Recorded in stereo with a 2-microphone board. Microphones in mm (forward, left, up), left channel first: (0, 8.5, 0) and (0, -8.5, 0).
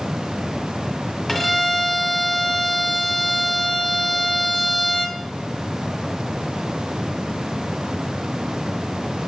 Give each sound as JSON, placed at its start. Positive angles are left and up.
{"t": 1.3, "sound": "a violin", "side_deg": 0, "distance_m": 1.5}